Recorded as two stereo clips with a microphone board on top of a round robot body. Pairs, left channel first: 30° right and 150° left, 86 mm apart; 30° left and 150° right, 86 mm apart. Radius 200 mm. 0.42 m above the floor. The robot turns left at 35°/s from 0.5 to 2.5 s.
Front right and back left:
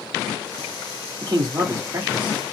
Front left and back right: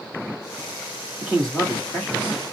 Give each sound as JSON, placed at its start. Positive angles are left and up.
{"t": 1.2, "sound": "a man speaking", "azimuth_deg": 125, "distance_m": 1.9}